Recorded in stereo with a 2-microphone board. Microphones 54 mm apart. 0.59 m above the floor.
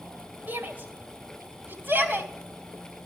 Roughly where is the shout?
Right.